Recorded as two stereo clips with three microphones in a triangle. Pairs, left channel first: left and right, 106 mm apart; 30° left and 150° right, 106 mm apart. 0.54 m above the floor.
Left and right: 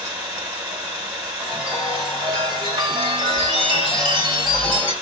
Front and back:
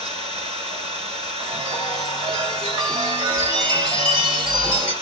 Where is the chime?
120° right, 2.5 m.